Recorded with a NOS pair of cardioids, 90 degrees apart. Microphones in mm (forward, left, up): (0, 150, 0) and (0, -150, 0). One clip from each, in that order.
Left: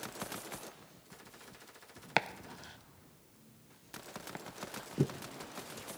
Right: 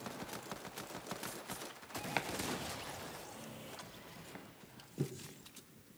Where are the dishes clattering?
I don't hear dishes clattering.